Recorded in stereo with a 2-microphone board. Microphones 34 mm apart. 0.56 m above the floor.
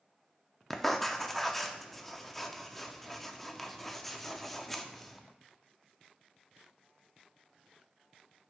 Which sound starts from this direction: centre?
Writing, at 0.7 s.